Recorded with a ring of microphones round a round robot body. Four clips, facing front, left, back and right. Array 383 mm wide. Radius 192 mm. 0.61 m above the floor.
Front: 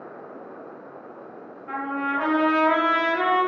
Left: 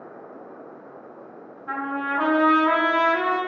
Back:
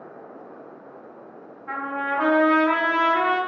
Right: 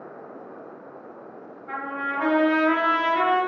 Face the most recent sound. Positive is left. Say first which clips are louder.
# left 3 dB, even
turn(degrees=125)